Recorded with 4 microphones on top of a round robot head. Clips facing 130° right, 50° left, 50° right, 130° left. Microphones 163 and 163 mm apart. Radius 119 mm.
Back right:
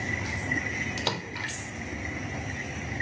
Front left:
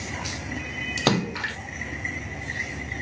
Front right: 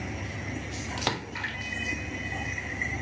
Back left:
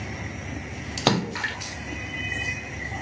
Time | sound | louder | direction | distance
1.0 | a splash | front left 14 dB, back left 11 dB | 85° left | ?